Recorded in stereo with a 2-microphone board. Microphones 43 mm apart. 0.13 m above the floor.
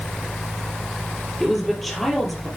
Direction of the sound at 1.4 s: Centre (ahead or behind).